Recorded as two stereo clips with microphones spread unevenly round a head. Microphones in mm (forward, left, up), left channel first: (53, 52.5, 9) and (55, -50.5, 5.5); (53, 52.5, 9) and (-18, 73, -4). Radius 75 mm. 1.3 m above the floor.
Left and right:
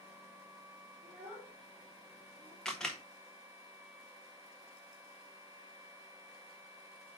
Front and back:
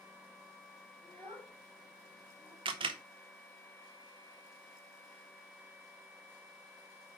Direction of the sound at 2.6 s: 175° left.